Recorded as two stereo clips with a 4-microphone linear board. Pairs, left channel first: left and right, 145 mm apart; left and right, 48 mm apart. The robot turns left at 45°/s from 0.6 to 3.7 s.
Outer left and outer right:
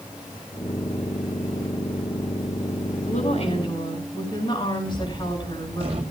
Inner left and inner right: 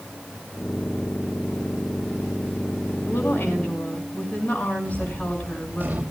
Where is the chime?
No chime in this recording.